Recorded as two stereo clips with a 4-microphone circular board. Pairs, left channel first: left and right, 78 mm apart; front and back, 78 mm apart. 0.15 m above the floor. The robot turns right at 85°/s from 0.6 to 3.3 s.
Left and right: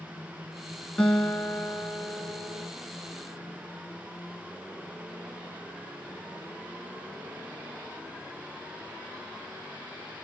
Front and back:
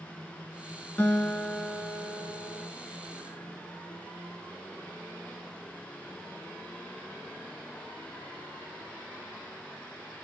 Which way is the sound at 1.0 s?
30° left.